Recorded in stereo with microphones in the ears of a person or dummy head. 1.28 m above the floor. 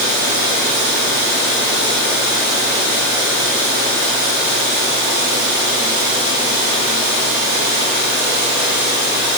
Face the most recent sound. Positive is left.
No sound to turn to.